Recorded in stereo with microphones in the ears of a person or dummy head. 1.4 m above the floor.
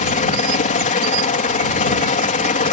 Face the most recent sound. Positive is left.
turn(degrees=30)  # may be behind; listen again after turning